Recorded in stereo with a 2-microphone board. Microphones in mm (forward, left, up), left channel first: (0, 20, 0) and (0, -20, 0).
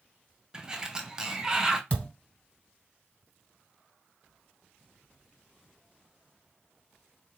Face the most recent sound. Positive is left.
turn(degrees=25)  # may be behind; listen again after turning